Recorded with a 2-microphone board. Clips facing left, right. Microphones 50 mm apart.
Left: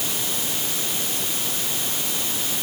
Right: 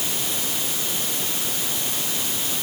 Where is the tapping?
No tapping in this recording.